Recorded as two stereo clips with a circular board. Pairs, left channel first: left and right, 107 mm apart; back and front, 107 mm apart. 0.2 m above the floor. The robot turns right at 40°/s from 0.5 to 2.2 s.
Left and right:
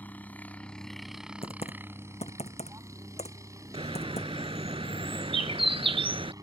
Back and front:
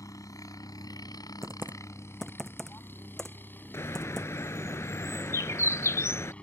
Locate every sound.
0.0 s a helicopter: 155° left; by 6.4 s 110° right
1.4 s typing on a keyboard: 65° left; by 4.3 s 95° left
3.7 s a bird: 115° right